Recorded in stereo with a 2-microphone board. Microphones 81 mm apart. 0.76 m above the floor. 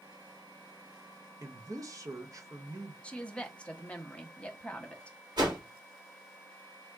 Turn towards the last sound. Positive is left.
turn(degrees=-65)  # may be behind; listen again after turning